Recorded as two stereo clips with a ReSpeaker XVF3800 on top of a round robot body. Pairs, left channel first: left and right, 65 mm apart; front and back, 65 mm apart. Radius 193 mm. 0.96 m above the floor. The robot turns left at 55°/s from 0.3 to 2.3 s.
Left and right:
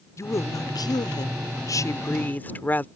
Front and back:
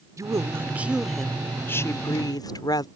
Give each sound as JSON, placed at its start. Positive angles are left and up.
{"t": 0.2, "sound": "a woman speaking", "azimuth_deg": 135}